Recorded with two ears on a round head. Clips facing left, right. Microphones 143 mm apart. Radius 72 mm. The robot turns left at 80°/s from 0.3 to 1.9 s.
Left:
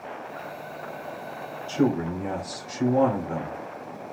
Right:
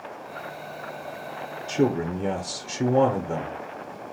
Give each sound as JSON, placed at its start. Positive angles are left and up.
{"t": 1.7, "sound": "a man speaking", "side_deg": -15, "distance_m": 0.8}